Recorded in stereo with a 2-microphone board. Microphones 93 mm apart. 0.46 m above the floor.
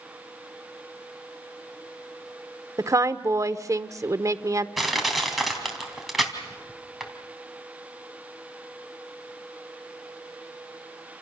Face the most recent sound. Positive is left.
turn(degrees=0)  # may be behind; listen again after turning